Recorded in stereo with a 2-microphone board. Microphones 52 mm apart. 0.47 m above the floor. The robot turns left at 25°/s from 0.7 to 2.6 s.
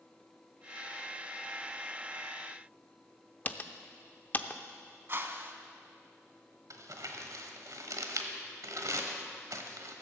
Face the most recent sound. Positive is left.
turn(degrees=-75)  # may be behind; listen again after turning